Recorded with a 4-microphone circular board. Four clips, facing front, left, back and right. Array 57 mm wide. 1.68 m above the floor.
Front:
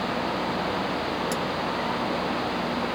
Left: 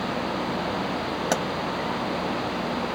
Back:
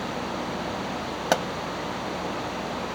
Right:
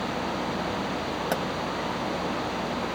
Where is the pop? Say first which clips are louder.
Left 3 dB, back 5 dB; 165° left.